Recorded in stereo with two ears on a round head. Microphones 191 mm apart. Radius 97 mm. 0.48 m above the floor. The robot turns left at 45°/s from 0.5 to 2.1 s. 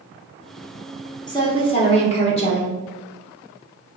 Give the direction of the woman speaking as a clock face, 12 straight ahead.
7 o'clock.